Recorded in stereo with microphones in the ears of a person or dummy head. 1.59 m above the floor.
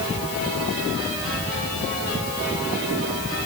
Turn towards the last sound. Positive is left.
No sound to turn to.